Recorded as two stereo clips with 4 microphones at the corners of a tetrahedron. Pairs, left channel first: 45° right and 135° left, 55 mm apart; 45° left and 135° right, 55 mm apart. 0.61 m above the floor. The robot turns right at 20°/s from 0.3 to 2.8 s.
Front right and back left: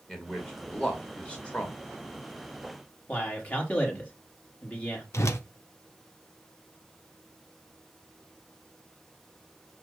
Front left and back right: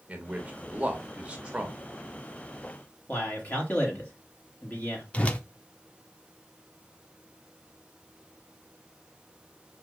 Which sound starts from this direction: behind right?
A man speaking, at 0.1 s.